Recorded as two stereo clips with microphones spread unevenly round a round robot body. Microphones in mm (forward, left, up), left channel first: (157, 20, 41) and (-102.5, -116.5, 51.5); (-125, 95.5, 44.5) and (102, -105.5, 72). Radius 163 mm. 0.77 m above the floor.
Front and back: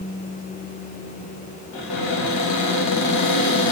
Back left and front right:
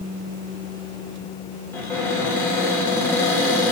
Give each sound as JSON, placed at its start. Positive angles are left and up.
{"t": 1.7, "sound": "a cupboard door", "azimuth_deg": 60, "distance_m": 3.0}